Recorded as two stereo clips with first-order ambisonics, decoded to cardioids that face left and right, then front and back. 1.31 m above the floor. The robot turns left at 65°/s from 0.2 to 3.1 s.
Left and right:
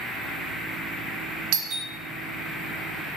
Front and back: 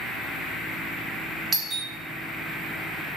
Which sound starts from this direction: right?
A doorbell, at 1.5 s.